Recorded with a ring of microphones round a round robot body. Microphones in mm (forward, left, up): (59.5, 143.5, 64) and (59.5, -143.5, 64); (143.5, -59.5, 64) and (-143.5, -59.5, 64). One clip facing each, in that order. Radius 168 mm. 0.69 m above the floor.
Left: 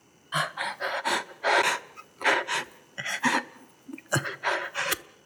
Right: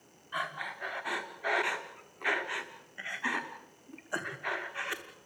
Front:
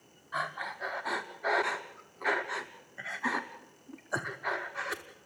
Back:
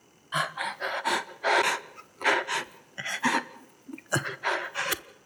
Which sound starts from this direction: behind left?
Breathing, at 0.3 s.